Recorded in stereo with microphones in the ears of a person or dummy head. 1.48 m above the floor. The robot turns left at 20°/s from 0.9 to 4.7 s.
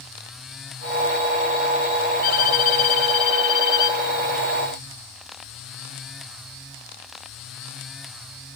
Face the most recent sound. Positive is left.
turn(degrees=10)